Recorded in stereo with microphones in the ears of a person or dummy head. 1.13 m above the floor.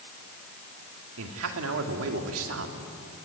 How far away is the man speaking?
About 2.5 m.